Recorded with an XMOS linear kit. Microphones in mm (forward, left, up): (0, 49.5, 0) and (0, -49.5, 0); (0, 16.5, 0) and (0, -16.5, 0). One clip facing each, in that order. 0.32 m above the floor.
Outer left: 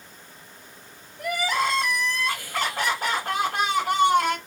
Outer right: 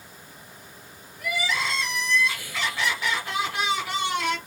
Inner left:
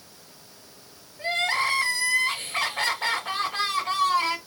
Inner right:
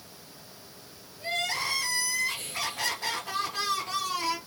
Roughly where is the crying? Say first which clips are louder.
Outer left 4 dB, inner left 6 dB; left.